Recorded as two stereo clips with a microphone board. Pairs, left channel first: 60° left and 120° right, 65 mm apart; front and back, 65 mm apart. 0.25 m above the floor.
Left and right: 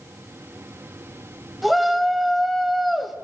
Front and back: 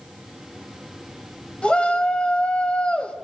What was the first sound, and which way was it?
A shout, 30° right.